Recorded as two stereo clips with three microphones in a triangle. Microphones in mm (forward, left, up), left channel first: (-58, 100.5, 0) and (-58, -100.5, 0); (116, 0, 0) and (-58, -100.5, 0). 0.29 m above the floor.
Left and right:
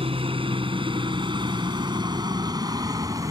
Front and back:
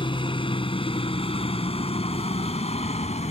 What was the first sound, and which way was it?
A helicopter, 30° right.